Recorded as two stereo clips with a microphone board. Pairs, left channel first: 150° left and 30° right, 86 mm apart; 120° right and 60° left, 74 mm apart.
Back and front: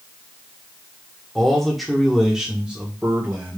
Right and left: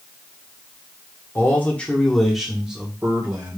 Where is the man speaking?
130° right, 1.1 m; by 3.6 s 30° left, 1.3 m.